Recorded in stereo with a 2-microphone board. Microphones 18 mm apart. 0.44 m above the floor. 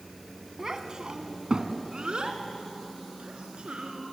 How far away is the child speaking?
About 1.8 m.